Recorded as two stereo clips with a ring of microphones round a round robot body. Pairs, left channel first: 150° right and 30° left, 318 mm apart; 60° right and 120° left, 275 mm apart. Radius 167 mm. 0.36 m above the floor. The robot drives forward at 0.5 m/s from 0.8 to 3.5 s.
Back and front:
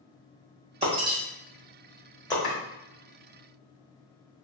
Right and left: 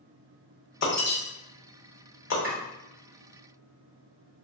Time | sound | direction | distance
0.8 | breaking glass | 40° right | 1.4 m
2.4 | chopping | 175° left | 1.5 m